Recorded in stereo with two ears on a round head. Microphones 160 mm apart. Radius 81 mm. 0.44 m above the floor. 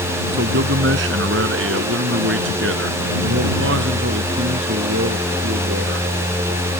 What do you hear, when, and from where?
0.3 s a man speaking: 75° right (ahead or behind); by 6.1 s 65° right (ahead or behind)